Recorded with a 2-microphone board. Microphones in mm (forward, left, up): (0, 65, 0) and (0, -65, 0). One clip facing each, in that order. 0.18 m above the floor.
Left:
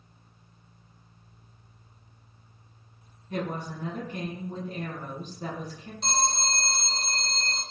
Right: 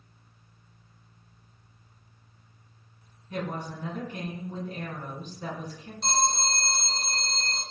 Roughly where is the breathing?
I don't hear breathing.